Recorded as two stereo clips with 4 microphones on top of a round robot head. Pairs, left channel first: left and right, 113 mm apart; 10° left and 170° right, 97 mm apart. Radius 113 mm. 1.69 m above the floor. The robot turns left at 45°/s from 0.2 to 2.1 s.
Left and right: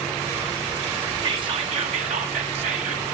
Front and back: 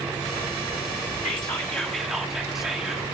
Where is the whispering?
45° right, 0.7 m; by 3.1 s 85° right, 0.7 m.